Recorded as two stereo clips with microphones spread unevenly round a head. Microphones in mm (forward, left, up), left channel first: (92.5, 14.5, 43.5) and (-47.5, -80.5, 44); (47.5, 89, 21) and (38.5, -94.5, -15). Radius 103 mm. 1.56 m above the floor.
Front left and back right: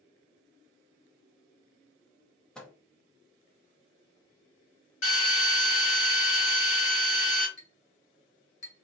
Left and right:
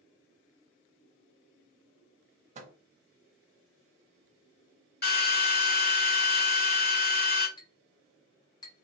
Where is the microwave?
50° right, 0.7 m.